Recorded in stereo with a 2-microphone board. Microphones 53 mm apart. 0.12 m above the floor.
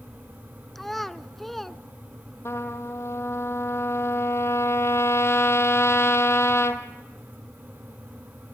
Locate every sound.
0.8 s a child speaking: 5° left (ahead or behind), 0.6 m
2.5 s a trumpet: 55° left (ahead or behind), 1.2 m